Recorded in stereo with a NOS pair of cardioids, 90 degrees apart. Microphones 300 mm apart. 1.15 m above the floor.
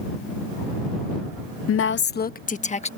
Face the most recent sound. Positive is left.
turn(degrees=20)